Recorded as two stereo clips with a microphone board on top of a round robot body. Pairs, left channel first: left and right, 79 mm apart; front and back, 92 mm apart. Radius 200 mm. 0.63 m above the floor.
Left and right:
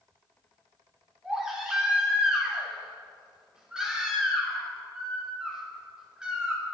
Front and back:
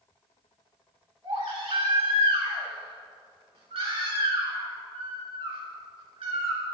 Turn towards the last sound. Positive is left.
turn(degrees=-165)